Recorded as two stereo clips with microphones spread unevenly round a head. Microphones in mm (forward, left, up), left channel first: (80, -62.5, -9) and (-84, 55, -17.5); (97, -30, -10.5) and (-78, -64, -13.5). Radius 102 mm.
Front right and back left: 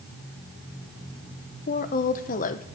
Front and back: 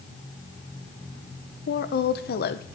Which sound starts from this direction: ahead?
A woman speaking, at 1.7 s.